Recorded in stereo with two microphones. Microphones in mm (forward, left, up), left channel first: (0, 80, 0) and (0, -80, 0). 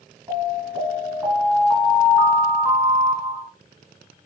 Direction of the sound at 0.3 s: 15° right (ahead or behind).